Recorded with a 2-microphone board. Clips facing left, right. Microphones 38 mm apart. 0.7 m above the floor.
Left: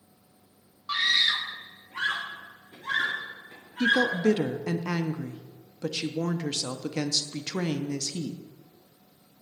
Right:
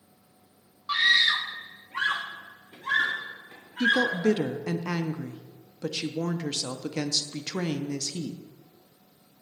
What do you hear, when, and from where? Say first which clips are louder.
0.9 s a scream: right 3 dB; 10° right (ahead or behind), 0.5 m; by 4.3 s 40° right (ahead or behind), 1.9 m
3.8 s a woman speaking: even; 5° left (ahead or behind), 0.6 m